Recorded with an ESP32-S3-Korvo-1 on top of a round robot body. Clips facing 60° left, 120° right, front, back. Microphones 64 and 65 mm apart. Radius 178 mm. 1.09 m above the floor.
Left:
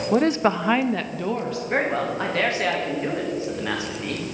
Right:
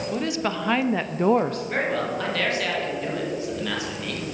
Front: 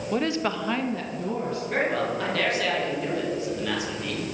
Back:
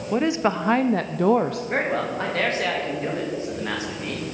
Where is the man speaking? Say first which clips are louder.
Left 5 dB, front 1 dB; 125° left, 2.5 m.